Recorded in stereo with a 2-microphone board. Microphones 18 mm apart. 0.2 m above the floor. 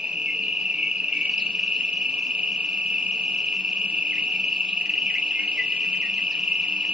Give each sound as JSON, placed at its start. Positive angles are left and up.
{"t": 0.0, "sound": "an insect", "side_deg": -60, "distance_m": 1.2}